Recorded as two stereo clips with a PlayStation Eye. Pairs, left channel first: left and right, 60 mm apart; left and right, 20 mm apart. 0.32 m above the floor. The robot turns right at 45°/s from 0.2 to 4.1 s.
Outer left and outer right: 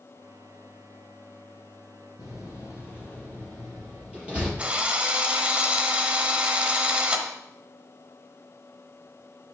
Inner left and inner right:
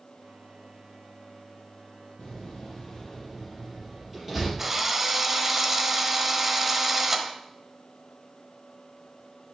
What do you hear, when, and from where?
2.2 s a door slam: 65° left (ahead or behind), 4.5 m; by 4.5 s 20° right (ahead or behind), 4.5 m
4.6 s a drill: 20° right (ahead or behind), 1.0 m